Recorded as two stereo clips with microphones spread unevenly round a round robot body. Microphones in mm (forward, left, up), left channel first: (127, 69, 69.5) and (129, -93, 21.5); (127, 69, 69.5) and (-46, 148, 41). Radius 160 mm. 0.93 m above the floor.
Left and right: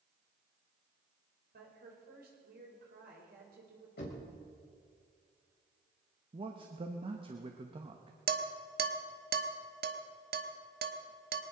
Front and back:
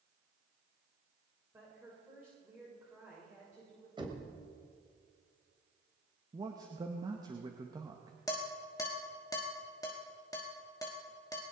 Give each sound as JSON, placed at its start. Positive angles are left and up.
{"t": 1.5, "sound": "a woman speaking", "azimuth_deg": -120, "distance_m": 3.5}
{"t": 4.0, "sound": "knocking", "azimuth_deg": 90, "distance_m": 3.5}
{"t": 6.3, "sound": "a man speaking", "azimuth_deg": -135, "distance_m": 0.8}
{"t": 8.3, "sound": "dishes clattering", "azimuth_deg": -100, "distance_m": 1.1}